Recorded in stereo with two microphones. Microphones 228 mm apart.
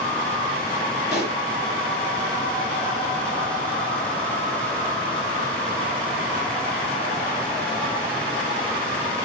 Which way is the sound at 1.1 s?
45° left (ahead or behind).